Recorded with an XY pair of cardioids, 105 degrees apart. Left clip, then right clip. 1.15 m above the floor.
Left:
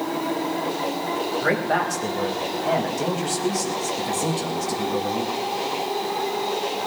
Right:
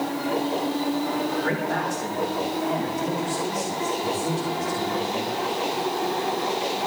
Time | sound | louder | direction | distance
1.4 | a man speaking | left 4 dB | 50° left | 5 m